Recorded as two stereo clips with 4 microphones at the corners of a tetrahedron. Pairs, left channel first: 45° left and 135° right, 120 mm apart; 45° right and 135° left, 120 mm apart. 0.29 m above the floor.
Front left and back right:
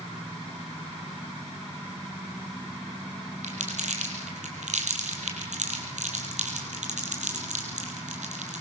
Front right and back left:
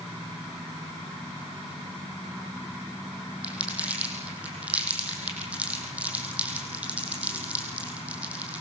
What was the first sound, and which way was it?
Crumpling, 145° right.